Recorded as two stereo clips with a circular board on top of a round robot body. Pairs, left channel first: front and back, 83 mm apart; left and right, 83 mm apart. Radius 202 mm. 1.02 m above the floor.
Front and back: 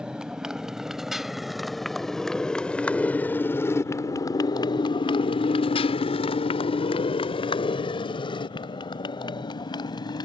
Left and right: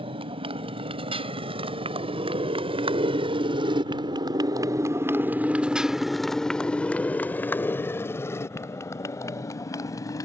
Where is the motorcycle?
100° right; by 10.3 s 40° left.